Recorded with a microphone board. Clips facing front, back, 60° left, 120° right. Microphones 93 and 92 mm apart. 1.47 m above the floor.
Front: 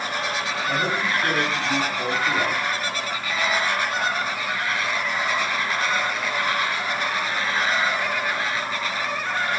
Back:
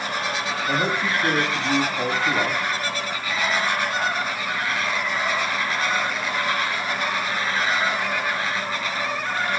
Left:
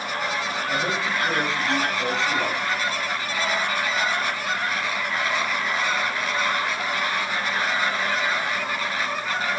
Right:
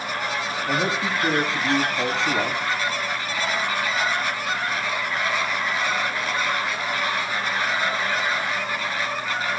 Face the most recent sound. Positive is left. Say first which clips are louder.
# back 1 dB, right 3 dB
turn(degrees=-120)